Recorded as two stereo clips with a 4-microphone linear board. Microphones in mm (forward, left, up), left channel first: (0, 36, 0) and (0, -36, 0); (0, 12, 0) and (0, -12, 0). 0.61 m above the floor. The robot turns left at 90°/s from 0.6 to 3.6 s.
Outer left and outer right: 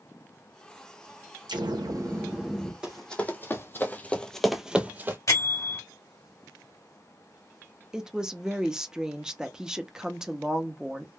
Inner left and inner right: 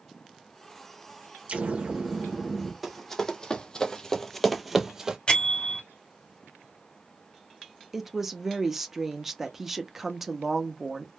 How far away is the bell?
About 1.9 m.